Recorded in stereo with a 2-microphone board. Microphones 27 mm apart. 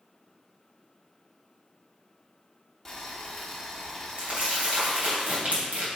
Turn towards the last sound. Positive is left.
turn(degrees=-65)  # may be behind; listen again after turning